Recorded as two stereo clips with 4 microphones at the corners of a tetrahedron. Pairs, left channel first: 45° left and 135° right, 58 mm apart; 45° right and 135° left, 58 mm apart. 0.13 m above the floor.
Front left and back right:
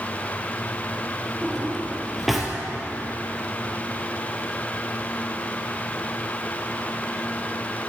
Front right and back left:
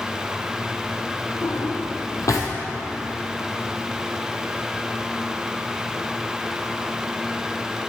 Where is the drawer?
45° right, 2 m.